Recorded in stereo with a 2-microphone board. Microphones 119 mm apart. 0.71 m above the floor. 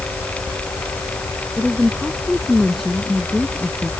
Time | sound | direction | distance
1.6 | a woman speaking | 5° right (ahead or behind) | ?